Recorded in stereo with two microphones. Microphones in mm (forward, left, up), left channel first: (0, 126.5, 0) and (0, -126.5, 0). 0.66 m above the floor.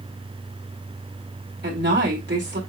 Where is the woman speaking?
45° right (ahead or behind), 2.5 m.